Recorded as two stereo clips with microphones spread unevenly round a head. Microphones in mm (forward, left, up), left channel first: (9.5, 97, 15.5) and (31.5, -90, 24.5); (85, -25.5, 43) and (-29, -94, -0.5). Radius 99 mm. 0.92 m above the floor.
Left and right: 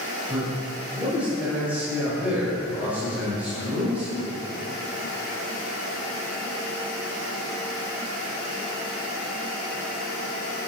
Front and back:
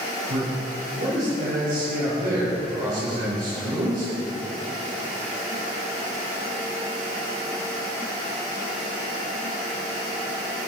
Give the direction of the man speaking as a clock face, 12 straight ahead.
6 o'clock.